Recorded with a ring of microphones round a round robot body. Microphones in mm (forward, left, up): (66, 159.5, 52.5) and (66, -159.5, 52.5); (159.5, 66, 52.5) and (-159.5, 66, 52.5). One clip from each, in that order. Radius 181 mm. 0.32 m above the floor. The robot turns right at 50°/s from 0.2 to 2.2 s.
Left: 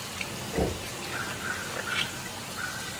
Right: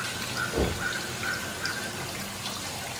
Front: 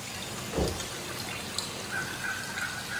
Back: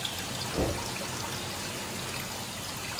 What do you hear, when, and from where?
0.5 s knocking: 40° right, 1.0 m; by 0.9 s 25° right, 1.0 m